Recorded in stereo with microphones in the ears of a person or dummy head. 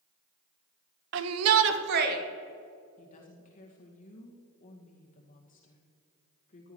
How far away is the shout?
About 0.8 m.